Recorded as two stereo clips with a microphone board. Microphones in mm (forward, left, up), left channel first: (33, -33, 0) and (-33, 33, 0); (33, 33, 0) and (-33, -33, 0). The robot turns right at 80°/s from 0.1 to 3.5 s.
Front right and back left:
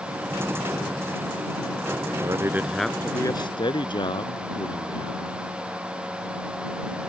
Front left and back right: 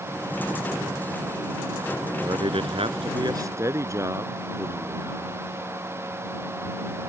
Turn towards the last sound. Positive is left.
turn(degrees=-80)